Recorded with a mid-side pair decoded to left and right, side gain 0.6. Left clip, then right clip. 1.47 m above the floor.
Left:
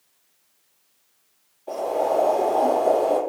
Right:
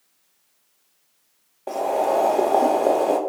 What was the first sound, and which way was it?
Boiling, 65° right.